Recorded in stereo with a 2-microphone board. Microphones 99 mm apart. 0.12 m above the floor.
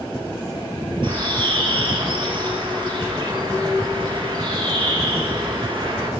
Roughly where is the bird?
Right.